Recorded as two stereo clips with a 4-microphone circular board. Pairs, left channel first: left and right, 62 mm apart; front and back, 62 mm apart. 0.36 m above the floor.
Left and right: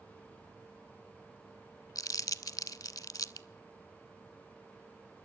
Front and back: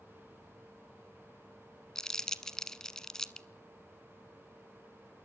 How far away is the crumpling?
About 0.6 m.